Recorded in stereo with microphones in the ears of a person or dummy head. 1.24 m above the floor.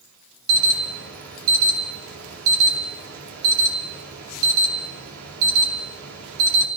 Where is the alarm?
80° right, 5 m.